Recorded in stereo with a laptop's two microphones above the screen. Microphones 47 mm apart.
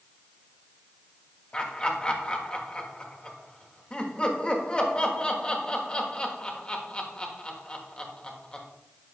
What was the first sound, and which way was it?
Laughter, 20° left (ahead or behind).